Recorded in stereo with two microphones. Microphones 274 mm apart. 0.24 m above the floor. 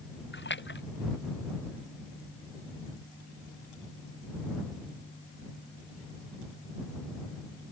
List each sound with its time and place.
0.3 s a splash: 40° left (ahead or behind)